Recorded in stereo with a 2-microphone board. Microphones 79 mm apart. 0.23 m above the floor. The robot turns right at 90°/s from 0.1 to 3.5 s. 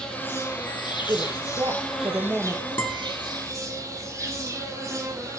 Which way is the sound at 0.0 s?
10° left.